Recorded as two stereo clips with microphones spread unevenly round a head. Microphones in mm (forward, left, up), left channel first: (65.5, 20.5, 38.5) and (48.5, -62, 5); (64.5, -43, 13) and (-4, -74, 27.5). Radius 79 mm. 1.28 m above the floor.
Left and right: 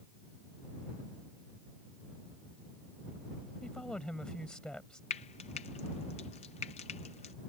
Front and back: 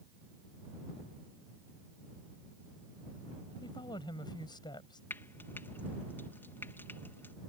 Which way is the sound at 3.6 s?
Straight ahead.